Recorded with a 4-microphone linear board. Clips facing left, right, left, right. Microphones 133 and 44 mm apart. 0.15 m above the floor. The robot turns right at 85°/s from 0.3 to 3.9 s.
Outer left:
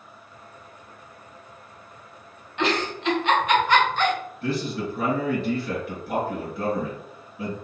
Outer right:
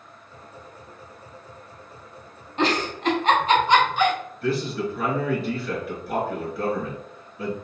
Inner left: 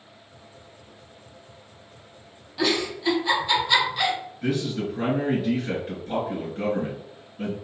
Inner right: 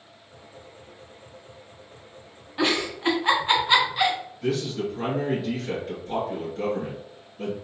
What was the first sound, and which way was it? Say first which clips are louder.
A giggle: outer right 2 dB, even; 35° right (ahead or behind).